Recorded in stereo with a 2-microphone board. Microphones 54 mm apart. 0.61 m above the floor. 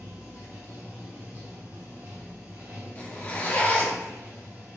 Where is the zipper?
30° left (ahead or behind), 0.9 m.